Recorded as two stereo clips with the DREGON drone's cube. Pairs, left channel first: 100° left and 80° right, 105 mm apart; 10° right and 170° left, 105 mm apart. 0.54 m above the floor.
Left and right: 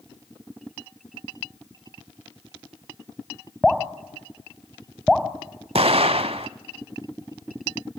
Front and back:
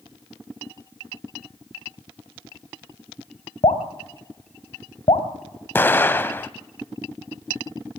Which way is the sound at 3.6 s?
10° left.